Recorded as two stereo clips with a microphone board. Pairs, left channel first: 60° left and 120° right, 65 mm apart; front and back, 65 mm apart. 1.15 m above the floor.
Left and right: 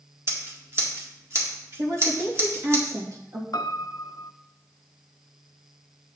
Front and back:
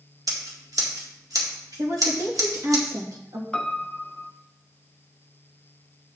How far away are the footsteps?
I don't hear footsteps.